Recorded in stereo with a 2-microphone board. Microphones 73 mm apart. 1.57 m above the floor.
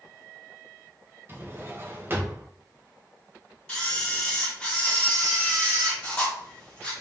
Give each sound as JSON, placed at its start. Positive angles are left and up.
{"t": 1.3, "sound": "a drawer", "side_deg": -30, "distance_m": 0.8}
{"t": 3.7, "sound": "a camera shutter", "side_deg": 15, "distance_m": 1.7}